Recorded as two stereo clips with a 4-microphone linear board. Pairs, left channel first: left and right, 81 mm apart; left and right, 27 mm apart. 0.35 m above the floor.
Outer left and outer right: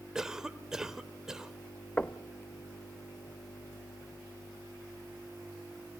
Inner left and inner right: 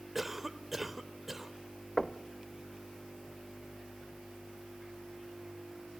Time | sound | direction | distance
0.1 | a cough | 5° right (ahead or behind) | 1.0 m
2.0 | knocking | 20° left (ahead or behind) | 0.6 m